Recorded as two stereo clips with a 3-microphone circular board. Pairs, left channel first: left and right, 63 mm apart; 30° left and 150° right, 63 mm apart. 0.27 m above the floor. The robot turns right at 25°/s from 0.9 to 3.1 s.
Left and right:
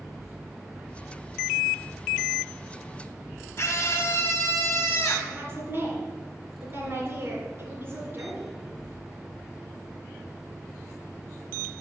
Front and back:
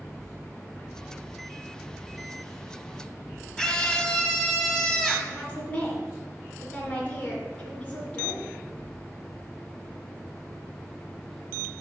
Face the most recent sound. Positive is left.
turn(degrees=-35)